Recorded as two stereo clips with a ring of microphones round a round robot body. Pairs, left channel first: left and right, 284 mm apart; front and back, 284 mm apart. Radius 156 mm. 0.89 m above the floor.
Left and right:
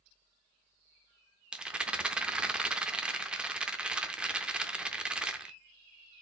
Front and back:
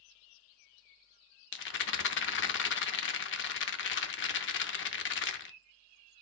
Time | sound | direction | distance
1.5 | a rattle | 5° right | 0.5 m